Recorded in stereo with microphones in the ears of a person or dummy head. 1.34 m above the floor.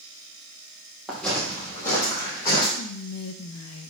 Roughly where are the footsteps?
Centre.